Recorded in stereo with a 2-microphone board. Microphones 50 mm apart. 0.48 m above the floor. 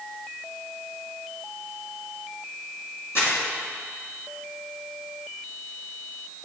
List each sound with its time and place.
3.1 s crumpling: 55° left (ahead or behind), 2 m